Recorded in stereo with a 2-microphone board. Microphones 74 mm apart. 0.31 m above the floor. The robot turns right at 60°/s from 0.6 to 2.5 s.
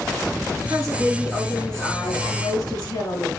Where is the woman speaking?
55° right, 5 m; by 3.3 s 55° left, 5 m.